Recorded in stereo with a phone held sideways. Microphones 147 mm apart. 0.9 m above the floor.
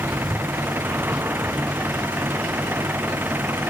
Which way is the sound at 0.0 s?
15° right (ahead or behind).